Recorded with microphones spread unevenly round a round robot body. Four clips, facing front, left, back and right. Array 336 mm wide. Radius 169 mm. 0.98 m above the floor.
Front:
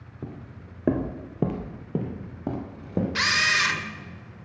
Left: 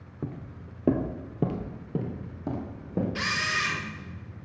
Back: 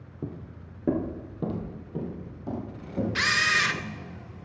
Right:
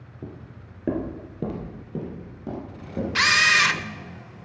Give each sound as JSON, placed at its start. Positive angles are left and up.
{"t": 0.2, "sound": "footsteps", "azimuth_deg": 95, "distance_m": 1.0}
{"t": 3.1, "sound": "a camera shutter", "azimuth_deg": -95, "distance_m": 0.7}